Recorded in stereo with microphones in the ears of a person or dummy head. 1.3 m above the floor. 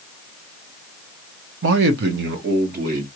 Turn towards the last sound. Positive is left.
turn(degrees=-50)  # may be behind; listen again after turning